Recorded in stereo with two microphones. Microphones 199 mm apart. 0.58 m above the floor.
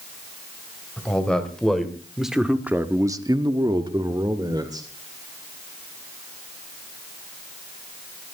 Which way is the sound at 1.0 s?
5° left (ahead or behind).